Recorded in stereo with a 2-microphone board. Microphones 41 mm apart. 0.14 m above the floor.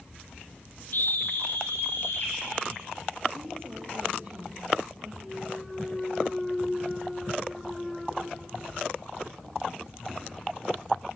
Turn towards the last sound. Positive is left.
turn(degrees=0)  # may be behind; listen again after turning